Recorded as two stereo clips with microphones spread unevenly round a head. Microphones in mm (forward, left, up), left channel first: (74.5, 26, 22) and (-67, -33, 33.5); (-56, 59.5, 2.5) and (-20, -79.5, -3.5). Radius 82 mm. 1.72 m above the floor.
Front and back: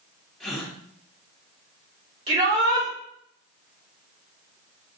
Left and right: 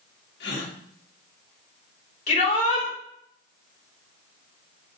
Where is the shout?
145° left, 3.5 m.